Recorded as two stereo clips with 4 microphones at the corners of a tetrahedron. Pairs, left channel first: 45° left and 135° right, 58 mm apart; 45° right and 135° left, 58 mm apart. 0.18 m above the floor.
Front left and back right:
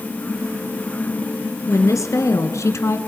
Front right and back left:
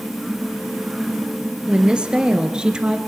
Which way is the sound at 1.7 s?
65° left.